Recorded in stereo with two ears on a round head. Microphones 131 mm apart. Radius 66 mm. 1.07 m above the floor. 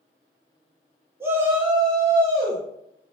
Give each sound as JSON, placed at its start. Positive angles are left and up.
{"t": 1.2, "sound": "a shout", "side_deg": -15, "distance_m": 0.7}